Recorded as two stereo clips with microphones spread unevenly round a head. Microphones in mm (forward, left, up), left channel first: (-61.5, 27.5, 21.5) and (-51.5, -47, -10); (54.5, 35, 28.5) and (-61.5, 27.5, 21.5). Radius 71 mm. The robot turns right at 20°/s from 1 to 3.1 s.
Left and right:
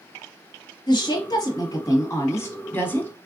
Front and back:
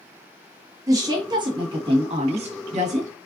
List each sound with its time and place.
0.9 s a woman speaking: 125° left, 1.3 m; by 3.1 s 165° left, 1.3 m